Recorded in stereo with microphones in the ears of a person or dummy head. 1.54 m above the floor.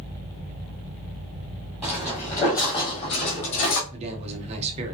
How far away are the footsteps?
About 1.6 m.